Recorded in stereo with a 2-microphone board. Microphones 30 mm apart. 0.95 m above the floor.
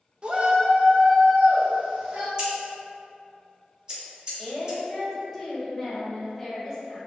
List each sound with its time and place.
0.2 s a shout: 35° right (ahead or behind), 0.5 m; by 2.3 s 40° right (ahead or behind), 2.0 m
2.4 s scissors: 30° right (ahead or behind), 0.9 m
4.4 s a woman speaking: 5° left (ahead or behind), 1.2 m